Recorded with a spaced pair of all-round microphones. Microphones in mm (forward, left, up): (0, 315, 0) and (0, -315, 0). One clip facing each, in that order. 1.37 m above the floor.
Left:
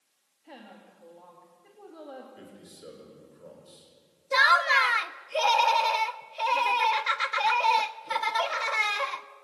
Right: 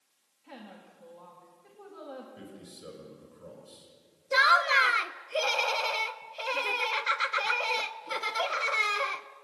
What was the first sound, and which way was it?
A woman speaking, 30° right (ahead or behind).